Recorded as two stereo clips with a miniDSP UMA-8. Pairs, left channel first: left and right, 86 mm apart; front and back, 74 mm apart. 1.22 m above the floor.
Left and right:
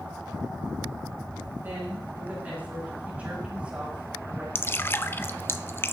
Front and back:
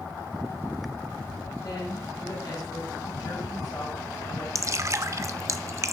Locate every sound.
1.6 s a woman speaking: 25° right, 7.5 m; by 4.5 s 10° right, 6 m
4.5 s dripping: 145° left, 0.6 m